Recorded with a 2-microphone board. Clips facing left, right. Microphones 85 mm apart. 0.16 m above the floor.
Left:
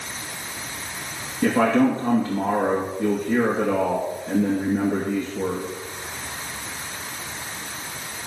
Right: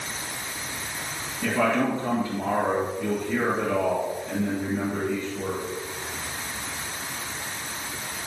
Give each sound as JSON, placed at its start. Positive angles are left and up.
{"t": 1.4, "sound": "a man speaking", "side_deg": 45, "distance_m": 2.5}